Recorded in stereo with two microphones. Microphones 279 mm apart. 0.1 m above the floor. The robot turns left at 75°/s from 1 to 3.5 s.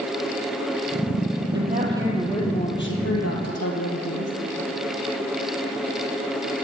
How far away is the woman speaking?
About 2.5 m.